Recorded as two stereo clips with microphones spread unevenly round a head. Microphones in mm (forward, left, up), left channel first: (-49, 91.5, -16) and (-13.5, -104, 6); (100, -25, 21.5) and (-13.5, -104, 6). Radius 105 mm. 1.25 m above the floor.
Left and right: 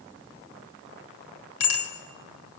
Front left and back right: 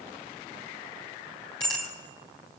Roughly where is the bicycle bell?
Left.